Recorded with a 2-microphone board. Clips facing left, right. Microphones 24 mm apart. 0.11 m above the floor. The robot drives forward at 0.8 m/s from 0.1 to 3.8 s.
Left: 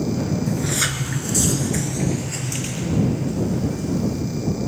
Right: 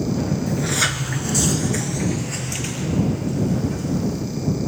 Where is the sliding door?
10° right (ahead or behind), 0.8 m; by 4.2 s 5° right (ahead or behind), 2 m.